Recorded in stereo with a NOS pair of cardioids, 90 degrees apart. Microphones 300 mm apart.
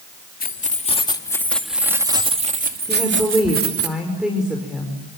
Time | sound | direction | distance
0.4 | keys jangling | 30° left | 3 m
2.9 | a woman speaking | straight ahead | 6.5 m